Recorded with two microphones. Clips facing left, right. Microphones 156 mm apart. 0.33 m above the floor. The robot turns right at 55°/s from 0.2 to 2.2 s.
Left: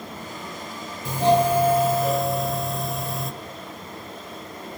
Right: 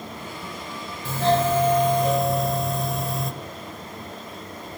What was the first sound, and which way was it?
A doorbell, 15° left (ahead or behind).